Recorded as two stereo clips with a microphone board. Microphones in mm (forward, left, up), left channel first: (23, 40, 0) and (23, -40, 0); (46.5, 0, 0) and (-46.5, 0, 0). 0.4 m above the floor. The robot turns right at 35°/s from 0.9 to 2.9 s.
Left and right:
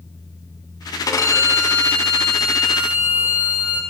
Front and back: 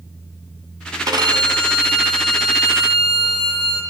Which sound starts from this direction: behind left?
A violin, at 1.1 s.